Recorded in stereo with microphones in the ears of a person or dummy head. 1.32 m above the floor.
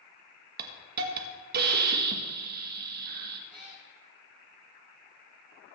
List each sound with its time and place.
0.6 s a hiss: 50° right (ahead or behind), 1.4 m
3.5 s a cat meowing: centre (ahead or behind), 3.5 m